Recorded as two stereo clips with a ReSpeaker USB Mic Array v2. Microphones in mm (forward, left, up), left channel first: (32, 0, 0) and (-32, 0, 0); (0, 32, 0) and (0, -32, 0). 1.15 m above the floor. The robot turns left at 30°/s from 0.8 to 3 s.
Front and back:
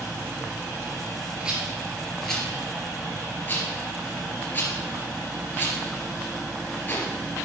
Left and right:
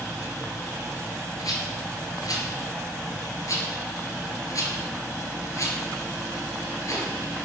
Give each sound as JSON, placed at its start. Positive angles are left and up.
{"t": 1.4, "sound": "a rattle", "azimuth_deg": 110, "distance_m": 3.0}